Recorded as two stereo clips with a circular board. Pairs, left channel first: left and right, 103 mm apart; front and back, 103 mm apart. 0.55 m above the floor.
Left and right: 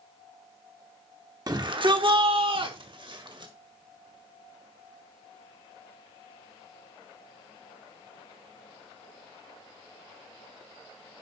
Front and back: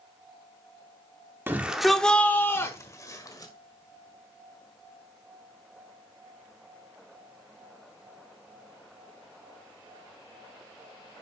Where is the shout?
120° right, 0.8 m; by 3.5 s 50° right, 2 m.